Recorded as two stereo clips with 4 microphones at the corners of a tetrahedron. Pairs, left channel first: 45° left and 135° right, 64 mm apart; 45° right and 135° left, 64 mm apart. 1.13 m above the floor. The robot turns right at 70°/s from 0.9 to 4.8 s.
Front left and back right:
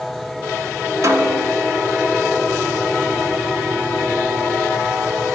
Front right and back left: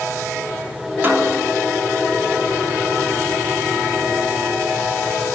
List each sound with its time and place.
1.0 s a snare drum: 170° right, 3 m; by 1.6 s 135° right, 3 m